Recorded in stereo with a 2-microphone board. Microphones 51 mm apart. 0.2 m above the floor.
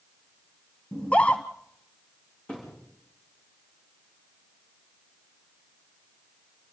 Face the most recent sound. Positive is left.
turn(degrees=20)  # may be behind; listen again after turning